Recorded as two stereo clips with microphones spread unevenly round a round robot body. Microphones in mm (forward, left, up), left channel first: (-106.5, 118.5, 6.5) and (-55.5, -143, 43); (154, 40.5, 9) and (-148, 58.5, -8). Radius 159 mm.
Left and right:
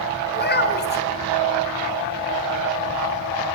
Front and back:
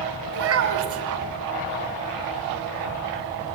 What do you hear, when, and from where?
0.3 s a child speaking: 145° left, 1.4 m